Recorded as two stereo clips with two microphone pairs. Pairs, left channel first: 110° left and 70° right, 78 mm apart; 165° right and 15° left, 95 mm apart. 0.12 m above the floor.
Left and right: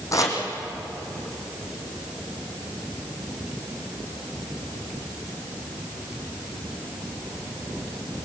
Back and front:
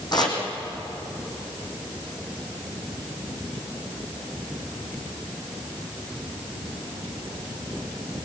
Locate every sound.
0.1 s chopping: 150° left, 4.5 m